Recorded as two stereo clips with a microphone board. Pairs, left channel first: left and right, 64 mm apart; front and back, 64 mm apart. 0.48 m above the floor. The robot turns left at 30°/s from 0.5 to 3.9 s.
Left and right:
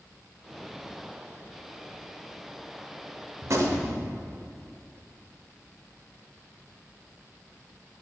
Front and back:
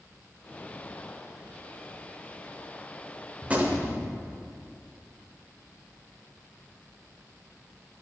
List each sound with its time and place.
3.4 s a gunshot: 110° right, 0.9 m; by 4.1 s 125° right, 0.9 m